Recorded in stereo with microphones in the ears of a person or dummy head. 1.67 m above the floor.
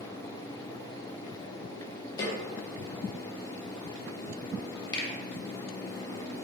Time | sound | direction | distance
2.2 | a snare drum | 30° left (ahead or behind) | 0.6 m
4.9 | a finger snap | 30° left (ahead or behind) | 0.6 m